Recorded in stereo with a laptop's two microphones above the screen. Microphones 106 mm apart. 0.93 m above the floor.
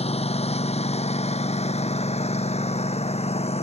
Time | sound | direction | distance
0.0 | a lawn mower | 70° left (ahead or behind) | ?